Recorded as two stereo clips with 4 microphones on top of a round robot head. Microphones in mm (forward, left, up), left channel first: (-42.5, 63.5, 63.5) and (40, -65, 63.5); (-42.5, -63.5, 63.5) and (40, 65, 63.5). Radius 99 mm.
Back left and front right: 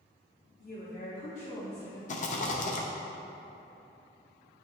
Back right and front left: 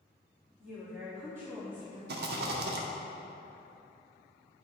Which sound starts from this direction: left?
A rattle, at 2.1 s.